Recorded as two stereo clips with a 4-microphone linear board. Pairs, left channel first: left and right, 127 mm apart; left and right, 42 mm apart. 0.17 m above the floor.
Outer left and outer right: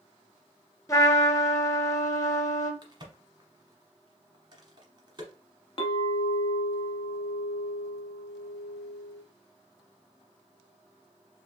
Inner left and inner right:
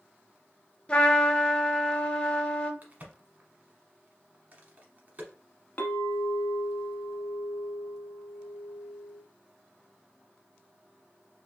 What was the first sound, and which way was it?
A trumpet, 25° left (ahead or behind).